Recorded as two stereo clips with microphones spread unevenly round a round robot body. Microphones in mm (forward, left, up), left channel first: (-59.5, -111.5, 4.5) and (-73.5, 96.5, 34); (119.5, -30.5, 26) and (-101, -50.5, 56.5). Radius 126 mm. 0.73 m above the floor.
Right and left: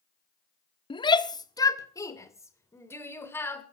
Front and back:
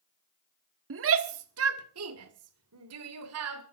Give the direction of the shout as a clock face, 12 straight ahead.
5 o'clock.